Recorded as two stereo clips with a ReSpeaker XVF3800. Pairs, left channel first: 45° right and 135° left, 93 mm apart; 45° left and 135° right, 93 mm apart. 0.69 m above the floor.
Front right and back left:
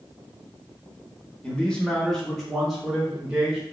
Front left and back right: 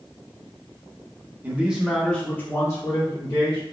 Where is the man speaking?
100° right, 0.7 m; by 3.6 s 55° left, 1.1 m.